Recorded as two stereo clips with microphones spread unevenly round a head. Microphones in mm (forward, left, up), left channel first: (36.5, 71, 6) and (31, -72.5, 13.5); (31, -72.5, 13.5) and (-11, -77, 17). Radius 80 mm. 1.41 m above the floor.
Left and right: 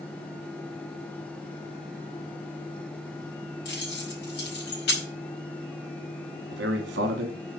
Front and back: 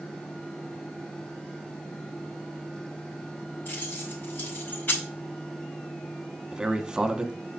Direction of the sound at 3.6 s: 90° left.